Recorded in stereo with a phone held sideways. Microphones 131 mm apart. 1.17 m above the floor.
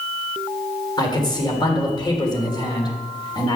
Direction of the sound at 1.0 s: 30° left (ahead or behind).